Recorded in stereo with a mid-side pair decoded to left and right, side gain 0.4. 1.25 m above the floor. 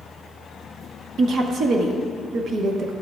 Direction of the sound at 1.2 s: 65° right.